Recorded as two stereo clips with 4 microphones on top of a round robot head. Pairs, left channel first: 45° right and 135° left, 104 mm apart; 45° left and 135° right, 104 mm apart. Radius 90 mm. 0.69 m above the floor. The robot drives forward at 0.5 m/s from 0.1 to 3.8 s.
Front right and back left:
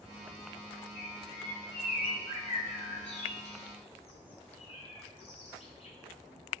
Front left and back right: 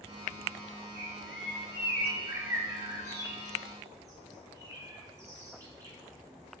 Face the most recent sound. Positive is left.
turn(degrees=-75)